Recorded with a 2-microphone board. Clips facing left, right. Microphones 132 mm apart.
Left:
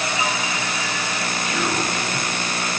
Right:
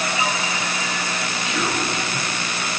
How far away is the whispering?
About 2.5 m.